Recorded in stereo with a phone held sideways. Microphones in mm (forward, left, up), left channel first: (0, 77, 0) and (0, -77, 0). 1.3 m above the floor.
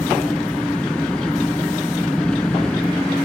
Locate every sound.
0.0 s an engine running: 5° left (ahead or behind)